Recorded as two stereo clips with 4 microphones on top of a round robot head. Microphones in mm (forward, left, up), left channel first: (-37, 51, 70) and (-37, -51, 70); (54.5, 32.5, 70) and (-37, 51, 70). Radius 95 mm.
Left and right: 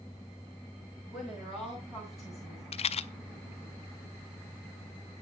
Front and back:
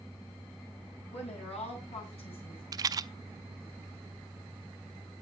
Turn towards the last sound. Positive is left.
turn(degrees=115)